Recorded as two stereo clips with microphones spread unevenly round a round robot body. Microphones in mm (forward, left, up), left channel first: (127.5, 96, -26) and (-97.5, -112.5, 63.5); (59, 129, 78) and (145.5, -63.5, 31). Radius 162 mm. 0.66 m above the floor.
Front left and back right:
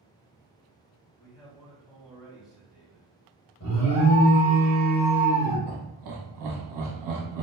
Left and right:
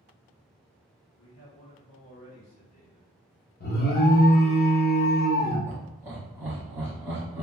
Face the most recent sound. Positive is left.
turn(degrees=-130)